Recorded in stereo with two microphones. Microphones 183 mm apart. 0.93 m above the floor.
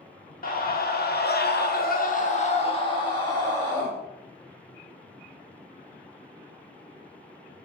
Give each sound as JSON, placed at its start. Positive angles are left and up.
{"t": 0.4, "sound": "a scream", "side_deg": 50, "distance_m": 1.0}